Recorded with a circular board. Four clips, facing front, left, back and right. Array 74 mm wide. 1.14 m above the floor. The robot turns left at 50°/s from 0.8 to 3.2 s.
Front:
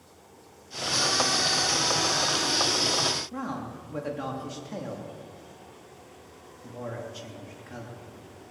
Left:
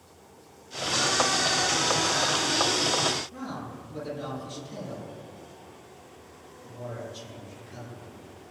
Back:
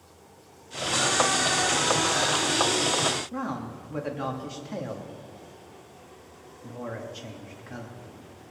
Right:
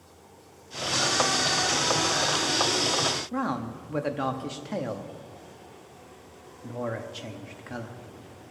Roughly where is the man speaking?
Right.